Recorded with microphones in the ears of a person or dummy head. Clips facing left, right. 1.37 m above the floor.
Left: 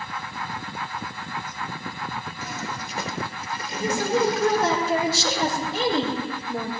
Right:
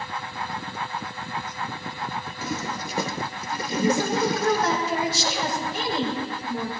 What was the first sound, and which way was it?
A toilet flushing, 80° right.